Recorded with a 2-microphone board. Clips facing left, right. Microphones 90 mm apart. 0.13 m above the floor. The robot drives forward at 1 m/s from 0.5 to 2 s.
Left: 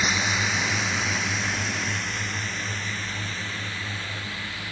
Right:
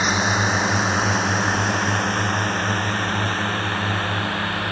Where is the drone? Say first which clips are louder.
Right 6 dB; 35° right (ahead or behind); by 4.7 s 60° right (ahead or behind).